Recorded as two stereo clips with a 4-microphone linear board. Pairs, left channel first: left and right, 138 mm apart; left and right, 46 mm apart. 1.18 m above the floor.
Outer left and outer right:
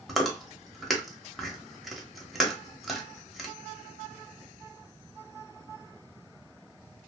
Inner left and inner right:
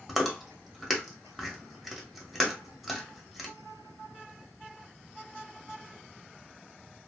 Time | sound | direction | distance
0.1 | chewing | centre (ahead or behind) | 0.8 m